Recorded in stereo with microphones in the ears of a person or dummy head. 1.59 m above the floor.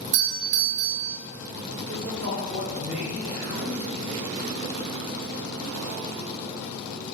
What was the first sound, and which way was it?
A doorbell, 40° right (ahead or behind).